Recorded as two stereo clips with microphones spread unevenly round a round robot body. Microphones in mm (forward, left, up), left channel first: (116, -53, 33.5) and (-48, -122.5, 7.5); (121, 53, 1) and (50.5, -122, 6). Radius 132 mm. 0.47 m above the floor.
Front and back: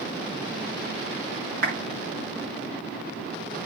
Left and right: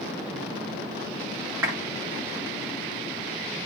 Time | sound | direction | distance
1.6 | a clap | 165° left | 5 m